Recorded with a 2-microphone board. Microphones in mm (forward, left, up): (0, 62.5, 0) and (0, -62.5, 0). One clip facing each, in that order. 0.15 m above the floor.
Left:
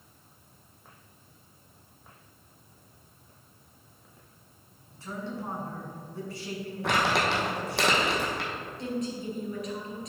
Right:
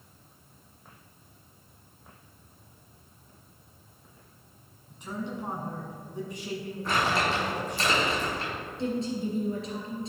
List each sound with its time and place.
4.9 s a man speaking: 20° right (ahead or behind), 1.5 m
6.8 s crumpling: 80° left, 1.8 m
8.8 s a woman speaking: 30° right (ahead or behind), 2.5 m